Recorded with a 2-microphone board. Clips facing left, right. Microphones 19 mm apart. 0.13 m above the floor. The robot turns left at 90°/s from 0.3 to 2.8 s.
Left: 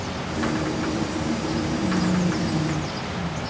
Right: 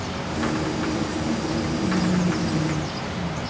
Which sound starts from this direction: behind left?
Whispering, at 1.7 s.